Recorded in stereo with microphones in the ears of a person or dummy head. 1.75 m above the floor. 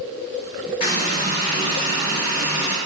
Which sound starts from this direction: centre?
A running tap, at 0.8 s.